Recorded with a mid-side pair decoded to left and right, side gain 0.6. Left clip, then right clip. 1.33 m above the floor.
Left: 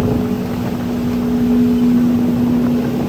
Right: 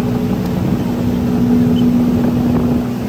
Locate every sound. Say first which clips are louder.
0.0 s a machine running: even; 20° right, 1.3 m